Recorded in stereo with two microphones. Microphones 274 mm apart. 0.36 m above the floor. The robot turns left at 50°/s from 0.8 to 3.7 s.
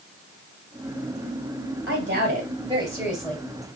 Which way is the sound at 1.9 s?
115° right.